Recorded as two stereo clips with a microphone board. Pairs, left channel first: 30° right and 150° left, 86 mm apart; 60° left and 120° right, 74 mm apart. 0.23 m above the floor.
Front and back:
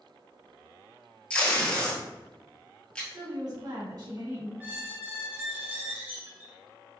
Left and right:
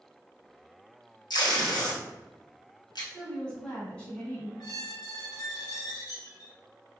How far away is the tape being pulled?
About 1.1 m.